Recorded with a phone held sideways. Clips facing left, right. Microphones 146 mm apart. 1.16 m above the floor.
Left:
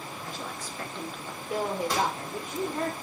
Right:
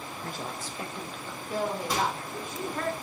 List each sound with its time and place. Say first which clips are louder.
0.2 s a woman speaking: right 3 dB; 55° right (ahead or behind), 0.9 m; by 2.9 s 30° left (ahead or behind), 3 m
1.9 s a microwave: even; 5° right (ahead or behind), 3 m